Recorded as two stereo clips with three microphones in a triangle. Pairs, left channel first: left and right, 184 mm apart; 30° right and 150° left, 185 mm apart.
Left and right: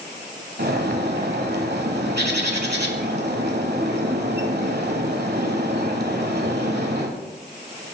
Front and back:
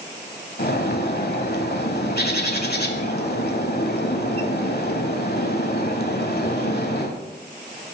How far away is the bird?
About 1.0 m.